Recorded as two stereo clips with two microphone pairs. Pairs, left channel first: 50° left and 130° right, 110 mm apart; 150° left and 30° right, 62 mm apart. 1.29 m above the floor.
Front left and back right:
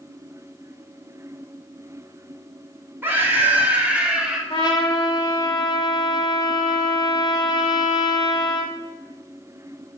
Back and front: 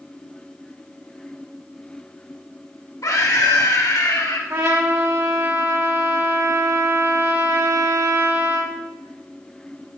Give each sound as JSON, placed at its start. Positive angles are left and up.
{"t": 3.0, "sound": "a scream", "azimuth_deg": 160, "distance_m": 2.5}
{"t": 4.5, "sound": "a trumpet", "azimuth_deg": 5, "distance_m": 2.5}